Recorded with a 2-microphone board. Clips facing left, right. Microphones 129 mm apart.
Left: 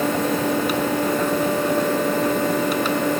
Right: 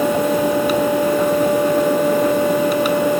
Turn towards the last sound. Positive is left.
No sound to turn to.